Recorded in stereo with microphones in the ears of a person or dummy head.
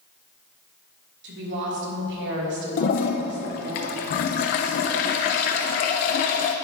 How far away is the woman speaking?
About 2.5 m.